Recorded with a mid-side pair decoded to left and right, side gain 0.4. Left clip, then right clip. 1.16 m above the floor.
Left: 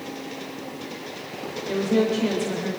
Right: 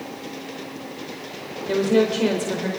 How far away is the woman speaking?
About 4.5 m.